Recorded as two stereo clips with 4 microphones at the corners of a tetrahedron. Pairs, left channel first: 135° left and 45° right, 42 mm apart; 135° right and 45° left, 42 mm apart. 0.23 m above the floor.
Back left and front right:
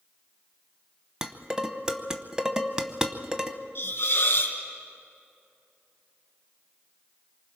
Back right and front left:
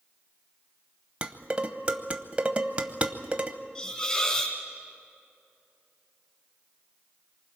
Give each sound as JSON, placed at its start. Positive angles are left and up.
{"t": 1.2, "sound": "dishes clattering", "azimuth_deg": 15, "distance_m": 0.9}
{"t": 3.8, "sound": "a hiss", "azimuth_deg": 155, "distance_m": 3.0}